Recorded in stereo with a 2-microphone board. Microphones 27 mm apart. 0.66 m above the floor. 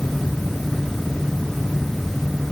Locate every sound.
Only background noise.